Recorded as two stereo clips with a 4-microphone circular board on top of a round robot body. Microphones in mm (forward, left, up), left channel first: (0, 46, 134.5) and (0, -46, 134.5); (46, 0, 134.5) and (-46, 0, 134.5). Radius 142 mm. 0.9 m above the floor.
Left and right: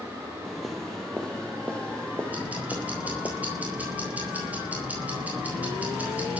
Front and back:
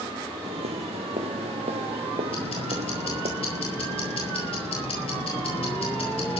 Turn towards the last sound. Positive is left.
turn(degrees=-15)